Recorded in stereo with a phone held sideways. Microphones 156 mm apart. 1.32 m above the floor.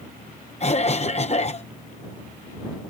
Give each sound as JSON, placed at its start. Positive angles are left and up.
{"t": 0.6, "sound": "a cough", "side_deg": 45}